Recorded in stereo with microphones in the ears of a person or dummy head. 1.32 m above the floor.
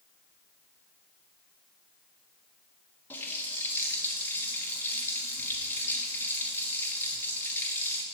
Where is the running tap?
15° left (ahead or behind), 1.4 m.